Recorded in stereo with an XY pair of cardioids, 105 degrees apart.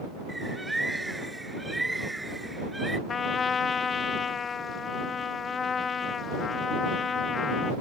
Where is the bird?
10° right.